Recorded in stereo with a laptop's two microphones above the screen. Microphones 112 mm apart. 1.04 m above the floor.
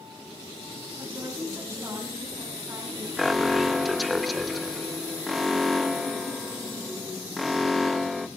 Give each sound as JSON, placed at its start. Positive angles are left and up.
{"t": 1.0, "sound": "a woman speaking", "side_deg": -25, "distance_m": 8.0}
{"t": 3.2, "sound": "an alarm", "side_deg": 0, "distance_m": 0.8}